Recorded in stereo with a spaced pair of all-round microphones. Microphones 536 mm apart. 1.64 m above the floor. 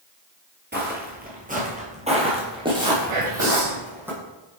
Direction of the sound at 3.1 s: 70° right (ahead or behind).